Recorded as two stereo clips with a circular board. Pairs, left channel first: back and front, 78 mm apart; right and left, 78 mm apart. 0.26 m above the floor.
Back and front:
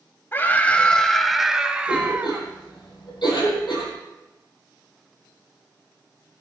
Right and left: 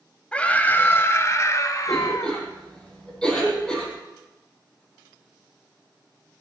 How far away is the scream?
About 1.2 m.